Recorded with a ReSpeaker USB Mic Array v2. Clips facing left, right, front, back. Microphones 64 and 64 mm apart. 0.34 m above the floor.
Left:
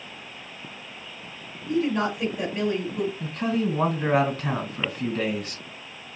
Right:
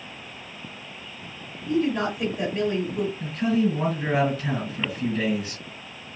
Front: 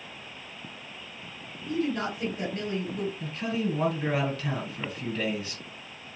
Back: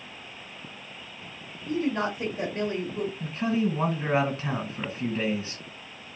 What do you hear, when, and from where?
1.7 s a woman speaking: 175° right, 1.3 m
3.2 s a man speaking: 120° left, 1.9 m